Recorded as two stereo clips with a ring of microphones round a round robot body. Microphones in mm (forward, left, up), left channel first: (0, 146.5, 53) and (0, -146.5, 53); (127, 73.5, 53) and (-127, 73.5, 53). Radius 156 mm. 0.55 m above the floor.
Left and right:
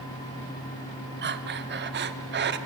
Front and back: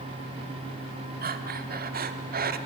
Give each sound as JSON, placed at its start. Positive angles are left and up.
{"t": 1.2, "sound": "breathing", "azimuth_deg": -135, "distance_m": 1.1}